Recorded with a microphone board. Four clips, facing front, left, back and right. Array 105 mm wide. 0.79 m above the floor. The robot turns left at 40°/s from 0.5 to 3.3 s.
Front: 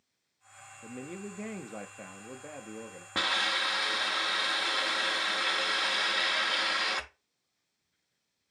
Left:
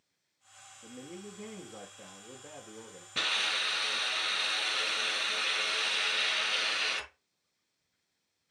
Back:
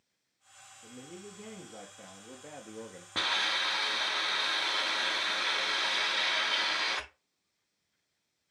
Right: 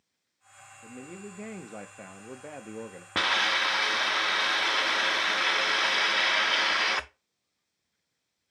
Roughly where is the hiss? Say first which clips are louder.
Right 8 dB, front 2 dB; right.